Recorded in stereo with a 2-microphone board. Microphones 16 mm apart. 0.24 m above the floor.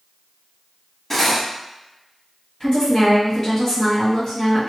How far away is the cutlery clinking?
About 0.8 m.